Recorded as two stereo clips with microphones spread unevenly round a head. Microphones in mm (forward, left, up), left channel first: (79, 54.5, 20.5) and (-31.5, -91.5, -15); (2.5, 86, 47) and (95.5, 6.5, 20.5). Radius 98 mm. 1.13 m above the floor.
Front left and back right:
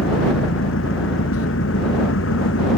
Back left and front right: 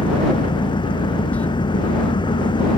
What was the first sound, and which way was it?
An engine running, 85° left.